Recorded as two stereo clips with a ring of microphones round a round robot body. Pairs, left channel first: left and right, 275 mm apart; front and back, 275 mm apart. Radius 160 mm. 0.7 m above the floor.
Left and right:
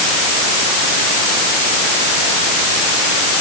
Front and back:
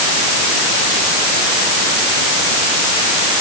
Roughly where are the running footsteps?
No running footsteps in this recording.